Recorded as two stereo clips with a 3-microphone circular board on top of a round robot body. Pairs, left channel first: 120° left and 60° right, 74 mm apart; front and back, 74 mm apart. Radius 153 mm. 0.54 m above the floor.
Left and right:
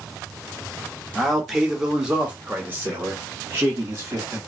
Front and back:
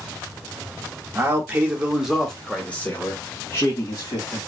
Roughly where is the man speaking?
Behind right.